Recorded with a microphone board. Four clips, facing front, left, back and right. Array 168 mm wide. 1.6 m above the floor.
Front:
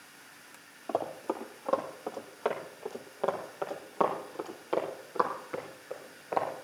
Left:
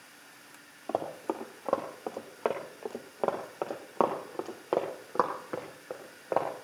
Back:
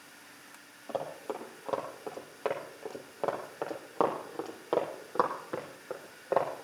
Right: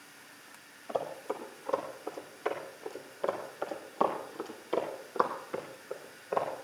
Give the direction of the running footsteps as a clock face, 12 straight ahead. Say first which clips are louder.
Left 2 dB, front 3 dB; 10 o'clock.